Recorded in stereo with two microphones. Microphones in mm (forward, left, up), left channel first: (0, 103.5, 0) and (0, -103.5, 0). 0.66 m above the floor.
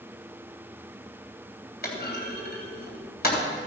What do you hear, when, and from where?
1.8 s a clunk: 50° left (ahead or behind), 3 m